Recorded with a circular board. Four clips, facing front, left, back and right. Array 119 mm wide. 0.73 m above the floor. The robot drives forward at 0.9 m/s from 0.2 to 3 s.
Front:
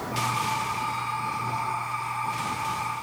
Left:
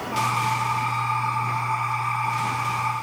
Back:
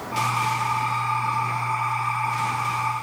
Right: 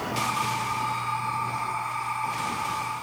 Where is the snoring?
I don't hear snoring.